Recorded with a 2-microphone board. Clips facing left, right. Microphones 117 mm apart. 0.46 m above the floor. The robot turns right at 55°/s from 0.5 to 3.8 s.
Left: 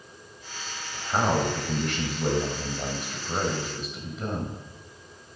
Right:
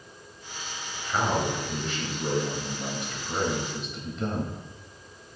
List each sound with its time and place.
0.9 s a man speaking: 20° left, 2 m; by 4.6 s 175° left, 2 m